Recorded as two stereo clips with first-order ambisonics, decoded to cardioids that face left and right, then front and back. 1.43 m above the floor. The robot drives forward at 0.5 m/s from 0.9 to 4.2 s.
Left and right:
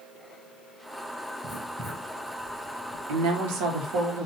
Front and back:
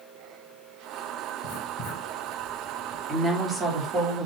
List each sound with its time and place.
1.4 s writing: 30° right, 3 m; by 3.0 s 35° right, 2.5 m
3.1 s a woman speaking: 95° right, 1.4 m; by 4.3 s 115° right, 1.5 m